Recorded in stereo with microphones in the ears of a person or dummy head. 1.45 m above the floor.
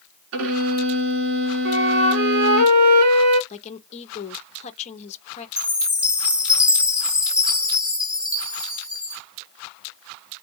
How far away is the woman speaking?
About 0.9 m.